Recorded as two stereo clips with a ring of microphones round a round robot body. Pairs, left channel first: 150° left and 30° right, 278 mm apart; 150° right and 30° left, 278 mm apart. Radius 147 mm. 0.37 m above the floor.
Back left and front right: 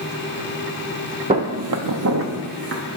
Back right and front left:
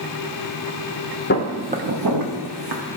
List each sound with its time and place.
1.3 s footsteps: 100° right, 0.7 m; by 2.8 s 25° left, 1.8 m